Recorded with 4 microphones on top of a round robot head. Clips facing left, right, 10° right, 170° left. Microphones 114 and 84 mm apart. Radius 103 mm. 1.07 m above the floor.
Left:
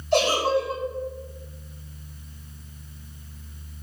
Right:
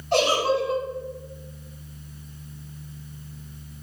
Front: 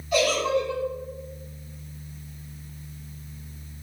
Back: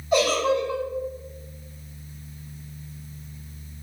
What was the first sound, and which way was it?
A giggle, 120° right.